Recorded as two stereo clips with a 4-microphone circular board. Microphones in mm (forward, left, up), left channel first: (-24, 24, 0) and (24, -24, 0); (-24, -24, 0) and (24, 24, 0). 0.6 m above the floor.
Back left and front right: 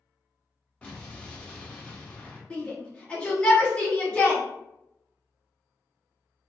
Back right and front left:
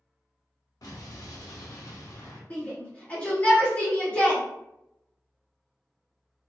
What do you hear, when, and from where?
0.8 s an explosion: 155° right, 0.7 m
2.5 s a shout: 170° right, 1.3 m